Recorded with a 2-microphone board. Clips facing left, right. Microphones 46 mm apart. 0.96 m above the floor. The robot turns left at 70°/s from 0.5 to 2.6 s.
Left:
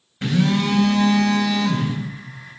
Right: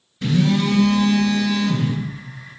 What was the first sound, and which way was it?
A phone buzzing, 140° left.